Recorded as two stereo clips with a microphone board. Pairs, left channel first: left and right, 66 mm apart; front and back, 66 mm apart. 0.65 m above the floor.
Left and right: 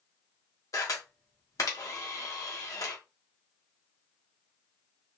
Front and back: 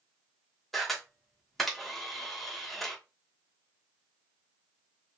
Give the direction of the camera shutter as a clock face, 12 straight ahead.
9 o'clock.